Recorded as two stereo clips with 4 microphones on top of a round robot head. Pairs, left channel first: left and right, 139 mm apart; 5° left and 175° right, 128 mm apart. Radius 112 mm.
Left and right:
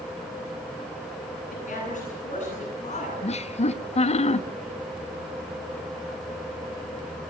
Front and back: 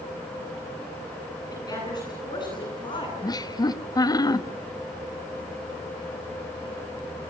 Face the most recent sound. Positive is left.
turn(degrees=60)